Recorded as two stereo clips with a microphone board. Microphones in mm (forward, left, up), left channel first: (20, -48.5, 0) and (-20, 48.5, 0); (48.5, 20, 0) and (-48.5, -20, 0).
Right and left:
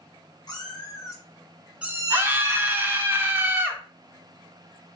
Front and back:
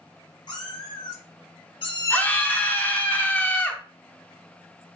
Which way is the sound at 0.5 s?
20° right.